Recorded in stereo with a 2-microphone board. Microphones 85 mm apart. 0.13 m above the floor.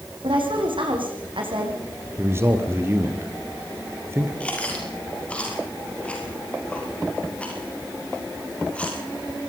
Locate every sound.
0.2 s a woman speaking: 75° right (ahead or behind), 7 m
2.2 s a man speaking: 30° right (ahead or behind), 3.5 m
4.4 s chewing: 15° left (ahead or behind), 6.5 m